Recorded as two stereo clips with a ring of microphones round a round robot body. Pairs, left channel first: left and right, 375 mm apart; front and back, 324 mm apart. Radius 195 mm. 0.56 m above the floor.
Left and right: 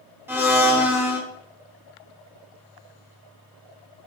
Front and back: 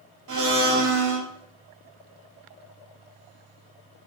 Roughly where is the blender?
Behind.